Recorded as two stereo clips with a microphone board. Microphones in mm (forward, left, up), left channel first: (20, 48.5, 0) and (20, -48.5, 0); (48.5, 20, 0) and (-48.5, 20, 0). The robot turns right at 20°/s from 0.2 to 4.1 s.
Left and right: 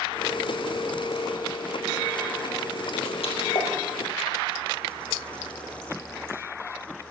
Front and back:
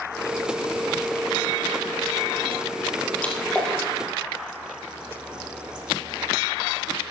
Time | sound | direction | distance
3.2 | a splash | 75° left | 3.5 m